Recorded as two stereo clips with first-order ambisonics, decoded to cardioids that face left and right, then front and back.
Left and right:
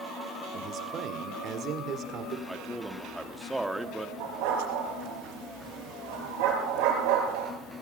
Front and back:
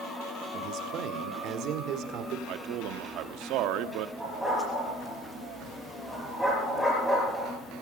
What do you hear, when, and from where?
0.5 s a man speaking: 145° right, 1.9 m
2.5 s a man speaking: 175° right, 0.9 m
4.2 s a dog barking: 90° right, 5 m